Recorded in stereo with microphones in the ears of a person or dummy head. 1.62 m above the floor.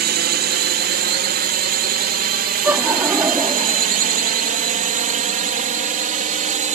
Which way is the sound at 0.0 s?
50° right (ahead or behind).